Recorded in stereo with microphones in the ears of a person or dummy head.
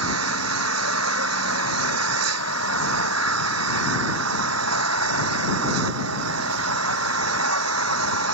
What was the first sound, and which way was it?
An engine running, 85° right.